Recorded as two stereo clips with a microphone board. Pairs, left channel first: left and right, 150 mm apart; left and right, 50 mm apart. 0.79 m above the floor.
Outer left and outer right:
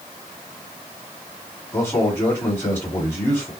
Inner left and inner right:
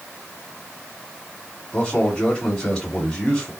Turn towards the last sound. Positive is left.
turn(degrees=20)  # may be behind; listen again after turning